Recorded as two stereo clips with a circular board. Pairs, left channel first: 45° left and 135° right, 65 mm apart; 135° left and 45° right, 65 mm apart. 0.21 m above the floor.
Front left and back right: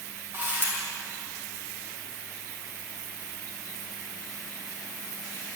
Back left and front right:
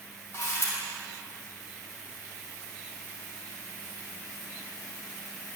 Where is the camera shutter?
Straight behind, 4.5 m.